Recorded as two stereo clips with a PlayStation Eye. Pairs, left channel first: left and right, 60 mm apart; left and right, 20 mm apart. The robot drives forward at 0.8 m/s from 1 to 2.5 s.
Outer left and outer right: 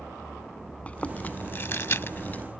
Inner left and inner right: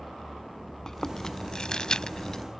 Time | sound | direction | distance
0.9 | chewing | 25° left (ahead or behind) | ?